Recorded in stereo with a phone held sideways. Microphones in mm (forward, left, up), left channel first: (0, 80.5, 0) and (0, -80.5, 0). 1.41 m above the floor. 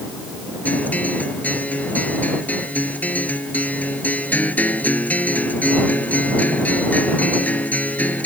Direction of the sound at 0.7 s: 10° left (ahead or behind).